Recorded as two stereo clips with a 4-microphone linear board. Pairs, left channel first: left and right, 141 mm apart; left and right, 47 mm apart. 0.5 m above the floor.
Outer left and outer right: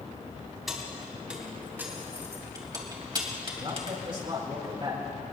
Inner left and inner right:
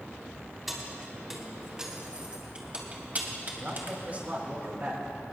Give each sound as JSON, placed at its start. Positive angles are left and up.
{"t": 0.7, "sound": "keys jangling", "side_deg": 0, "distance_m": 3.0}
{"t": 3.5, "sound": "a man speaking", "side_deg": -40, "distance_m": 4.5}